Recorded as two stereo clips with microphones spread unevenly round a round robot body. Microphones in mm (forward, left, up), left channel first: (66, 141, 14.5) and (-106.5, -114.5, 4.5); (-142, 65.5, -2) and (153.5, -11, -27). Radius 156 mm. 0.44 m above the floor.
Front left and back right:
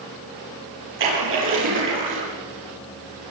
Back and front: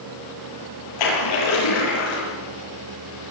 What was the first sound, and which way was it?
A splash, 175° right.